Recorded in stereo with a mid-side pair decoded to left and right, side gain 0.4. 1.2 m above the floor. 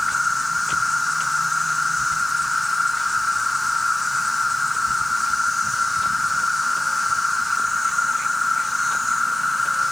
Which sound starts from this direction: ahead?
An insect, at 0.0 s.